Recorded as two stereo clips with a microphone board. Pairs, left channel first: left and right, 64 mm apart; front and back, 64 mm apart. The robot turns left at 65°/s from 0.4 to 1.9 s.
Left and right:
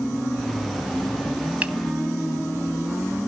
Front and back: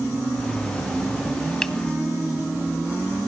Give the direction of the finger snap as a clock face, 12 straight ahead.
2 o'clock.